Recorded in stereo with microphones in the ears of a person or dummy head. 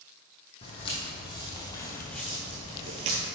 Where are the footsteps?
30° left (ahead or behind), 3 m; by 3.3 s 30° right (ahead or behind), 1.4 m.